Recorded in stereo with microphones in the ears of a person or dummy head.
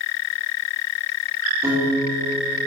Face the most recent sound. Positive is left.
turn(degrees=-15)  # may be behind; listen again after turning